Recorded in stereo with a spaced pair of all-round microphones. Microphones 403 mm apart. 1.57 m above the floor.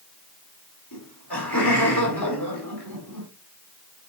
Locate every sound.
0.9 s laughter: 70° left (ahead or behind), 4.5 m